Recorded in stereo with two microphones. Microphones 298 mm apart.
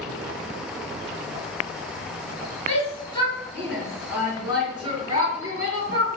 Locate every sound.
2.7 s a shout: 25° left (ahead or behind), 1.7 m; by 6.1 s 40° right (ahead or behind), 2 m